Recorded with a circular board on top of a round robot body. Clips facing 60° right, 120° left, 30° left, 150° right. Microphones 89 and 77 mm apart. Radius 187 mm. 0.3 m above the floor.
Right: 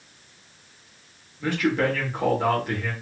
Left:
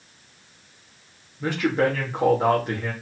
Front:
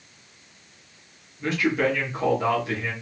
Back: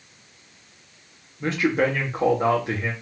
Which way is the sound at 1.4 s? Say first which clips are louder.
Left 1 dB, back 1 dB; 175° left.